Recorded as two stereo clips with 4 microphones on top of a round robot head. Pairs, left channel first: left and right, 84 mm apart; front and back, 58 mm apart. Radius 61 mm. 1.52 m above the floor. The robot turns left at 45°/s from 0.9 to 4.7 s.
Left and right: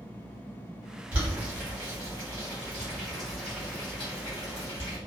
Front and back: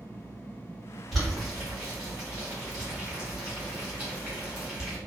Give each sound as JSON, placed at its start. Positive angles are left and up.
{"t": 1.1, "sound": "boiling", "azimuth_deg": -85, "distance_m": 1.2}